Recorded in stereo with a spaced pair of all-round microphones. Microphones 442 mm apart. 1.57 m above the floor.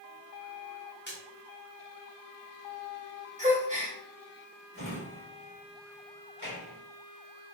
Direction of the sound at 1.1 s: 25° left (ahead or behind).